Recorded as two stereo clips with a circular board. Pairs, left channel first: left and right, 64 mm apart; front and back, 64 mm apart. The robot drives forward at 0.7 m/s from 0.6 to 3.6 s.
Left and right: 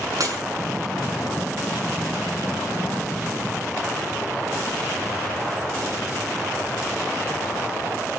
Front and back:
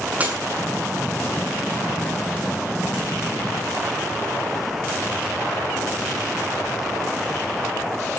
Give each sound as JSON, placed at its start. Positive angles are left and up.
{"t": 0.2, "sound": "breaking glass", "azimuth_deg": -115, "distance_m": 7.5}